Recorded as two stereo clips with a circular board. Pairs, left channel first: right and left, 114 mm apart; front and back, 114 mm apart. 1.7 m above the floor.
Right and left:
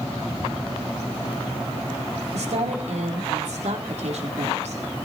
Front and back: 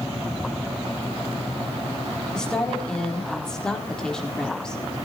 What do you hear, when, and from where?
2.3 s a woman speaking: 85° left, 4 m